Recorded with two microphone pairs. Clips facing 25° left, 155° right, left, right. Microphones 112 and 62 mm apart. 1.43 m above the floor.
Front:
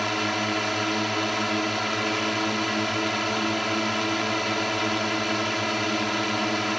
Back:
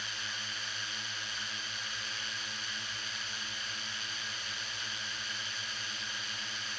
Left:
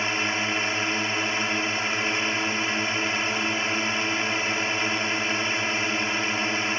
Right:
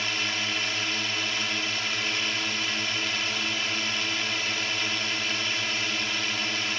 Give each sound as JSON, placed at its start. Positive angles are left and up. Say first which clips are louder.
{"t": 0.0, "sound": "a drone", "louder": "front 19 dB, left 4 dB", "azimuth_deg": 25}